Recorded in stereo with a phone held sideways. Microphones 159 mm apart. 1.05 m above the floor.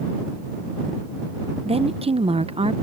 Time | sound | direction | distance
1.6 | a woman speaking | 35° right (ahead or behind) | ?